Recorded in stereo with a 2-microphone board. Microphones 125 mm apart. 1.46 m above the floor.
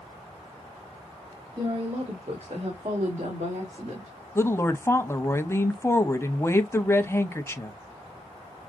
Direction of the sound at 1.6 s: 35° right (ahead or behind).